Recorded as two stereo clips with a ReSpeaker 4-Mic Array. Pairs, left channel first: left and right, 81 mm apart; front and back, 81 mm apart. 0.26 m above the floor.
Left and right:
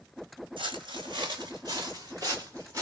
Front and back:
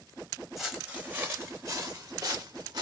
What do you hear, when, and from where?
0.6 s footsteps: 95° right, 1.2 m; by 2.8 s 140° right, 2 m